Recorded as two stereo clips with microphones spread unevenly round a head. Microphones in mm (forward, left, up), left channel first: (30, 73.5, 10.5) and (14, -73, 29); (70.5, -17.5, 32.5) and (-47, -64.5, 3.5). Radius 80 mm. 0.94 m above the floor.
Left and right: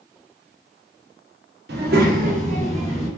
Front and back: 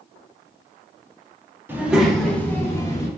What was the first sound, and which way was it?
A child speaking, 85° right.